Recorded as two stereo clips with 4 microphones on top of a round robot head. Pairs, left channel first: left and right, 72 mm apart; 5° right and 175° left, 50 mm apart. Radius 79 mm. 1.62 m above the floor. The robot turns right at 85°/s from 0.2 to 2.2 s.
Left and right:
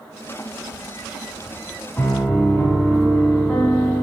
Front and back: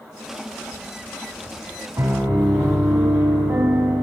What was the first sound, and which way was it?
A piano, 160° left.